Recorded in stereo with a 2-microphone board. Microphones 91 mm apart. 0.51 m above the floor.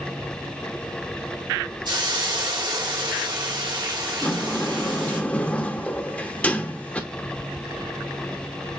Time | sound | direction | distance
1.9 | a hiss | 50° right (ahead or behind) | 1.6 m
4.2 | a sliding door | 15° left (ahead or behind) | 0.7 m